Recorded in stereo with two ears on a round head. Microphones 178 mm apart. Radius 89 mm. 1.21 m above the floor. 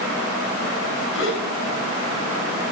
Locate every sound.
1.1 s a gasp: 70° left (ahead or behind), 4 m